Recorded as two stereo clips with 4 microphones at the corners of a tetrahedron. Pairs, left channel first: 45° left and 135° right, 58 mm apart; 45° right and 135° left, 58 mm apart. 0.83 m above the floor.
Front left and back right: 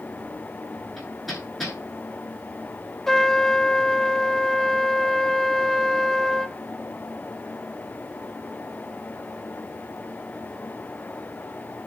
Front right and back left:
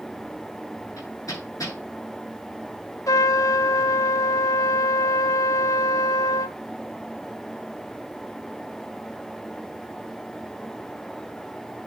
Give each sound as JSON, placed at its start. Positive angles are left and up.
{"t": 1.0, "sound": "hammering", "azimuth_deg": -45, "distance_m": 9.5}
{"t": 3.1, "sound": "a trumpet", "azimuth_deg": -40, "distance_m": 0.8}